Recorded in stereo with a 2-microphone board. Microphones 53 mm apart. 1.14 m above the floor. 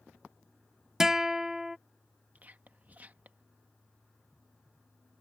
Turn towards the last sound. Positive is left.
turn(degrees=-30)  # may be behind; listen again after turning